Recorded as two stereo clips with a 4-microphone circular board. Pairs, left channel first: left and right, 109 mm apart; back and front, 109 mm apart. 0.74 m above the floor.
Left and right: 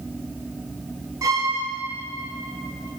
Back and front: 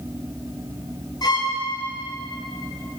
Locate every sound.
1.2 s a violin: 140° right, 1.0 m